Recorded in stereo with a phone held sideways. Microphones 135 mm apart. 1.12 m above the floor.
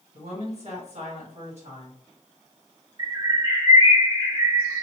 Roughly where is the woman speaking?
Right.